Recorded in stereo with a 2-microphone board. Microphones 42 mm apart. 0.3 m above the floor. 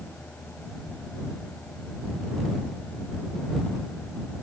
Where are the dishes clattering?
I don't hear dishes clattering.